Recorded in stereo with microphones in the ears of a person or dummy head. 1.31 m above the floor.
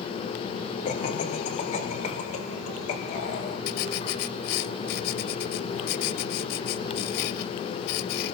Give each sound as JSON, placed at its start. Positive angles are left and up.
{"t": 0.8, "sound": "laughter", "side_deg": 35, "distance_m": 3.0}
{"t": 3.7, "sound": "writing", "side_deg": 60, "distance_m": 1.6}